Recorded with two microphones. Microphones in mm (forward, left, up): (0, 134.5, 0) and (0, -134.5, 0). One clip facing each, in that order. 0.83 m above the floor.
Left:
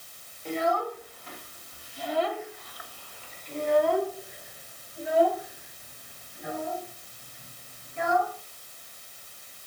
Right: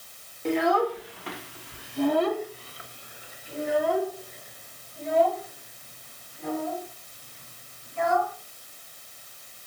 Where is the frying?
I don't hear frying.